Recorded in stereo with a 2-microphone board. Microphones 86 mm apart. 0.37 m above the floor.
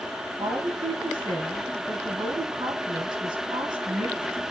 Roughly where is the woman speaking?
Right.